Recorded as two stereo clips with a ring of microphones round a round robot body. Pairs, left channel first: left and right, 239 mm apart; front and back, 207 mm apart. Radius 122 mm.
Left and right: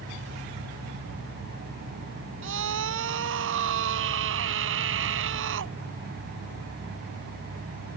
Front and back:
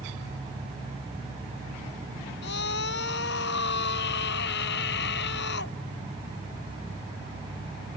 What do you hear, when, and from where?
2.4 s a scream: 50° right